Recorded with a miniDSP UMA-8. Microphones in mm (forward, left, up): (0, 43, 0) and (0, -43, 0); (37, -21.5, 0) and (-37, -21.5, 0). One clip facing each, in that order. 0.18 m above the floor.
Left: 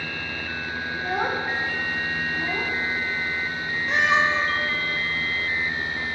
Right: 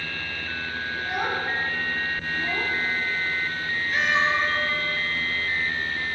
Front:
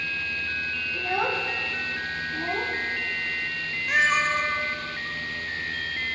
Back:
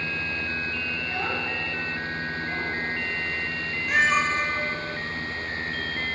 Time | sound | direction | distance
0.9 | a child speaking | 30° left | 4 m
3.9 | a cat meowing | 90° left | 4 m